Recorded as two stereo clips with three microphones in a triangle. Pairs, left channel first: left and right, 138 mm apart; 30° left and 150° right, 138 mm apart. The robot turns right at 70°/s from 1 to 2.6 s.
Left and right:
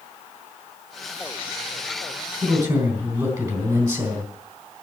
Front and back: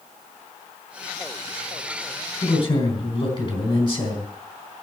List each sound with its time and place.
2.4 s a man speaking: 40° right, 3.5 m; by 4.8 s 25° right, 3.5 m